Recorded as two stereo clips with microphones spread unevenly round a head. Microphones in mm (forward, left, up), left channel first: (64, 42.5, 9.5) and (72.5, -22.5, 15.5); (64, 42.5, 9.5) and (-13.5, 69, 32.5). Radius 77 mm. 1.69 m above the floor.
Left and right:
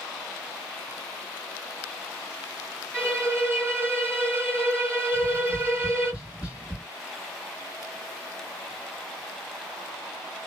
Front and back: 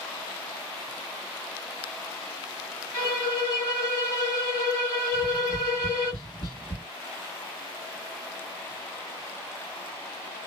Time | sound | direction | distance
2.9 | a violin | 45° right | 1.6 m
5.1 | tapping | 25° right | 1.5 m